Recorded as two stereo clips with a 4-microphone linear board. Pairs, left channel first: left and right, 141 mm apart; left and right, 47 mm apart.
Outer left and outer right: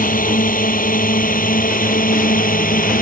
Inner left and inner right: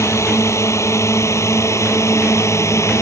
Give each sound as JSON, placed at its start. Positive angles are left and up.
{"t": 0.0, "sound": "a drone", "side_deg": 80}